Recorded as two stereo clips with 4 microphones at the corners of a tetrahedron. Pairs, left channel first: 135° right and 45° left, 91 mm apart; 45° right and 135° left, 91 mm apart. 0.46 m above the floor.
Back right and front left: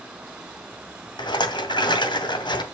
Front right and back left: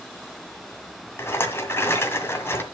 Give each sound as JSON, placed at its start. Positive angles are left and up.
{"t": 1.2, "sound": "a rattle", "azimuth_deg": -105, "distance_m": 2.0}